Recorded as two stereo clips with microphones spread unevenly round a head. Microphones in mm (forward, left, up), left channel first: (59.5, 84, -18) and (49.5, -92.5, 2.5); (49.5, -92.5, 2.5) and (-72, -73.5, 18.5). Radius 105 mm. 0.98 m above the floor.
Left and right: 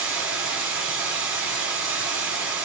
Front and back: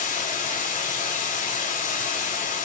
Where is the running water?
10° right, 4.5 m.